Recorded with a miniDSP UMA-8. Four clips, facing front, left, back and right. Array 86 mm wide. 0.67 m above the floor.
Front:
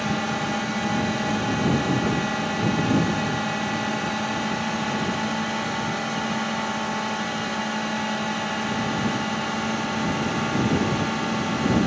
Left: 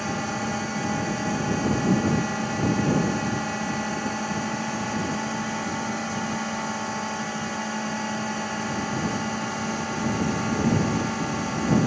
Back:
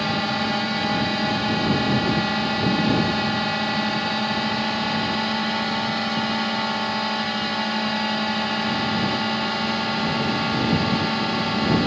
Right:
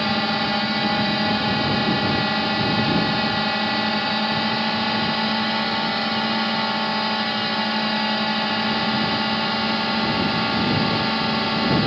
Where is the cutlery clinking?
No cutlery clinking in this recording.